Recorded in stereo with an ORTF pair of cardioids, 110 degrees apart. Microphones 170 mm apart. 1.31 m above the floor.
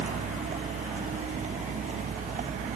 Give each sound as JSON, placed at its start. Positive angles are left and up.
{"t": 0.0, "sound": "a vehicle", "azimuth_deg": -45}